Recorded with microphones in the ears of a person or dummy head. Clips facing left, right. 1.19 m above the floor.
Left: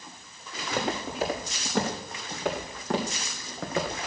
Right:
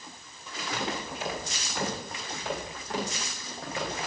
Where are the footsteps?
45° left (ahead or behind), 5.5 m; by 4.0 s 70° left (ahead or behind), 4 m.